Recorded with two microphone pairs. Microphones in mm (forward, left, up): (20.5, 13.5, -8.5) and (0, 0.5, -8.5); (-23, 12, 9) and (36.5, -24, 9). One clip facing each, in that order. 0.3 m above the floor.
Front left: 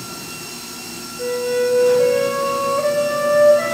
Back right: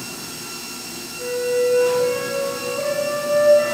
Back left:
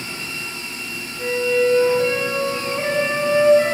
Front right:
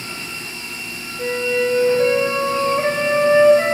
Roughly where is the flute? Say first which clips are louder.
Front left 1 dB, back left 1 dB; ahead.